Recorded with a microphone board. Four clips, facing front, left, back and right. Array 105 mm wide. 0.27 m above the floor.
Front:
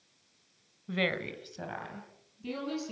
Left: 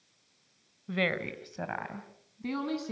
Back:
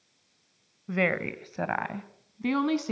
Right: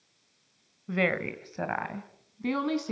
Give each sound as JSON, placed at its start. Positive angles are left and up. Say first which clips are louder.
{"t": 0.9, "sound": "a woman speaking", "louder": "right 3 dB, back 5 dB", "azimuth_deg": -150, "distance_m": 1.2}